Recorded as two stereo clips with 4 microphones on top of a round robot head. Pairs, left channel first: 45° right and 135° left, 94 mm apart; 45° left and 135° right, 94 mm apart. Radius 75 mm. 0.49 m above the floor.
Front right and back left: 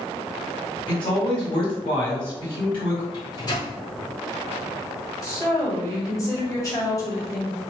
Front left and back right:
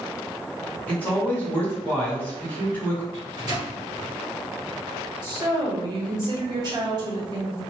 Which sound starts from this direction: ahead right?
A man speaking, at 0.9 s.